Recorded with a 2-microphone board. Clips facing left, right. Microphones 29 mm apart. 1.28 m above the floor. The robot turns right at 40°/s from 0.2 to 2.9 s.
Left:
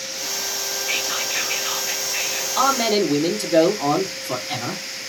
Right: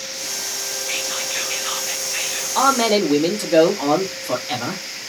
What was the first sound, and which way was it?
Whispering, 155° left.